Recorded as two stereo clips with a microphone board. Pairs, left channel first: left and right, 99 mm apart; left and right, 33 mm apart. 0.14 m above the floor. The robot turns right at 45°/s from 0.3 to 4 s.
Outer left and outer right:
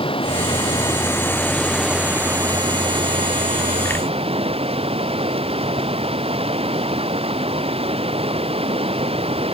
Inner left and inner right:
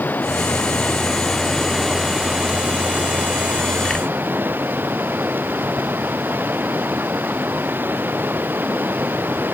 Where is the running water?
115° left; by 9.5 s 80° right.